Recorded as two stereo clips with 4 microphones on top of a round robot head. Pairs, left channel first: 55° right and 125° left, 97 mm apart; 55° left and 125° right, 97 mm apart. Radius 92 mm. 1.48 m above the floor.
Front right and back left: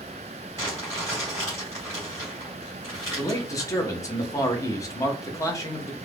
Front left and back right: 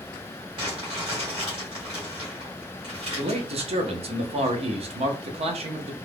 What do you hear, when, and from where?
0.6 s crumpling: 110° right, 1.4 m
3.2 s a man speaking: 115° right, 0.7 m